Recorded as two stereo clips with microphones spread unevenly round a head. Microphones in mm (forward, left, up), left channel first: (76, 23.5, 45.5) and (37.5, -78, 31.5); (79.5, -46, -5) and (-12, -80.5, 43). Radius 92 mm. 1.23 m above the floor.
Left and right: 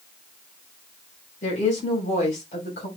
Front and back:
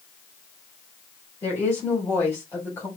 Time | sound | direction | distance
1.4 | a woman speaking | 100° left | 4 m